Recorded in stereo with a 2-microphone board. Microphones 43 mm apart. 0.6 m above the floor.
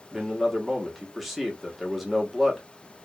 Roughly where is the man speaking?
Centre.